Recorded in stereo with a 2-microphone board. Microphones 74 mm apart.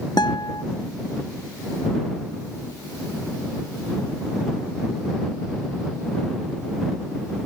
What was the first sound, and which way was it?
A guitar, 75° left (ahead or behind).